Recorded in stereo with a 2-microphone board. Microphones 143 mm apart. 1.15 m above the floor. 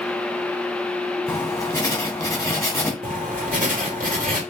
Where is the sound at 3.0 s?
70° right (ahead or behind), 2 m.